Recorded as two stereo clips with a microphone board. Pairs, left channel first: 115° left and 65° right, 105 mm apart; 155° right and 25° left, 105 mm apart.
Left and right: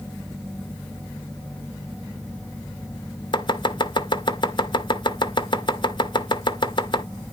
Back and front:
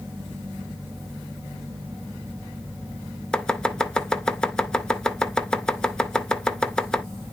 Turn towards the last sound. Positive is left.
turn(degrees=125)